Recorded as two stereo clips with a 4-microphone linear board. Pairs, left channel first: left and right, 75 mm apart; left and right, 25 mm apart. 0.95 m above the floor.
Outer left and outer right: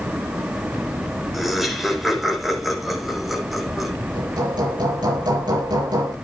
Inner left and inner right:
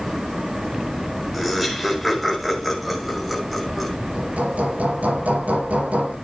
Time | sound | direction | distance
1.3 | laughter | centre (ahead or behind) | 5 m
4.1 | hammering | 75° right (ahead or behind) | 8.5 m